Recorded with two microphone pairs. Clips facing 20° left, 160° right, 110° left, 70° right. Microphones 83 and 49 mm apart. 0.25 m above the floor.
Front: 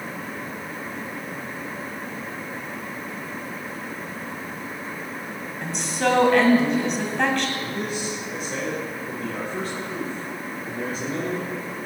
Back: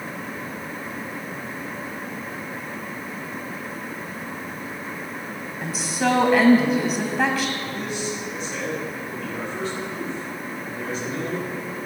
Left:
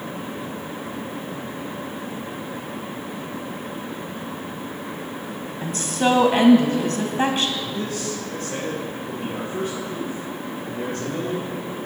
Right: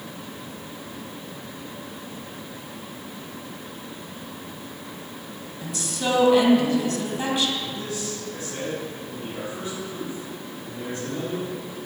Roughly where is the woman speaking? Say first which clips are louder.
Even, left 6 dB; behind left.